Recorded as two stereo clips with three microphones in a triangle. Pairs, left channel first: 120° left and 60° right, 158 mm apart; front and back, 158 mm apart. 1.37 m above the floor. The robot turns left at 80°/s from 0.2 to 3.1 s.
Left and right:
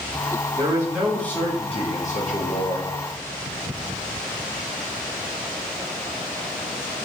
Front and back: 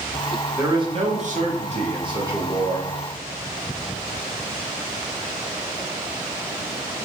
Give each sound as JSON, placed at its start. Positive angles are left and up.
{"t": 0.6, "sound": "a man speaking", "azimuth_deg": -110, "distance_m": 0.6}